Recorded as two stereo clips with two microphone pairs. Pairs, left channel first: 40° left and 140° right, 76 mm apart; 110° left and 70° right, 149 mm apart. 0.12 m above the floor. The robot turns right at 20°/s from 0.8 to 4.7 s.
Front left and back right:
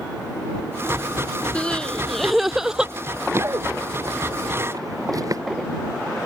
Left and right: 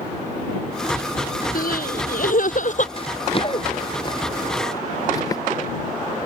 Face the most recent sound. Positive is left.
turn(degrees=175)